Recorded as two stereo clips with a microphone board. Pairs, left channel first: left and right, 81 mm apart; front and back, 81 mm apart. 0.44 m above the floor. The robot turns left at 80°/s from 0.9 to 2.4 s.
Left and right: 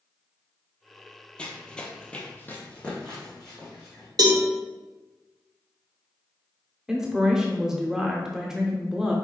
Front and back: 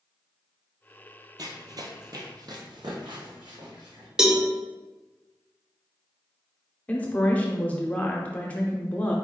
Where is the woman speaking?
25° right, 0.7 m.